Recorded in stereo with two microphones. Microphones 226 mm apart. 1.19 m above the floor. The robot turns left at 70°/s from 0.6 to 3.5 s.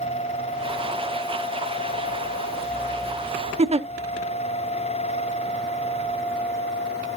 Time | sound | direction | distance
3.6 | a giggle | 25° right (ahead or behind) | 0.5 m